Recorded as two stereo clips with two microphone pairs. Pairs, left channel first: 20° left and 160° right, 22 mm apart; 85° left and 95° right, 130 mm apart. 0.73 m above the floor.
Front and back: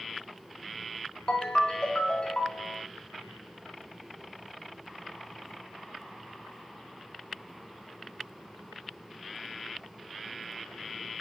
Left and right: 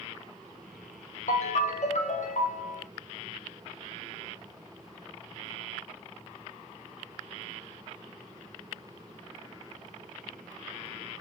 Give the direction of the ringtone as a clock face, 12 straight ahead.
10 o'clock.